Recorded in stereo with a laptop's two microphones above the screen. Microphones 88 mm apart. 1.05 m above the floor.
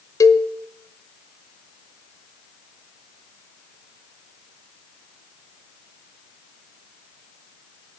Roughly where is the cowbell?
Left.